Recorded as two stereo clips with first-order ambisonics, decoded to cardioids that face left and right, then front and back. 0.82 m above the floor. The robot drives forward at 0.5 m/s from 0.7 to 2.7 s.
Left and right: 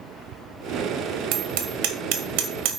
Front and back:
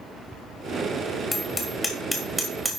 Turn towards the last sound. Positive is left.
turn(degrees=-100)